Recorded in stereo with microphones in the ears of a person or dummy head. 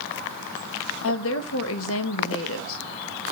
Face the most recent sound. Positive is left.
turn(degrees=65)  # may be behind; listen again after turning